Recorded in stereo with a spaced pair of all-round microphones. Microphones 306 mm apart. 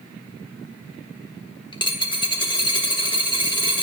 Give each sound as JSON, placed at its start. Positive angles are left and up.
{"t": 1.7, "sound": "a dropped coin", "side_deg": 15, "distance_m": 1.0}